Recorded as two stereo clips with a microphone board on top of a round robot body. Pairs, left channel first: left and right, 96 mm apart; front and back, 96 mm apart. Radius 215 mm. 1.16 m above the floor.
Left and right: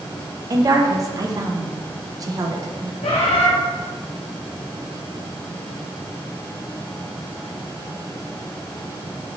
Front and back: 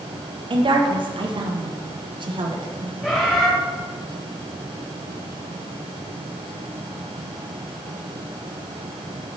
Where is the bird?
85° left, 1.4 m.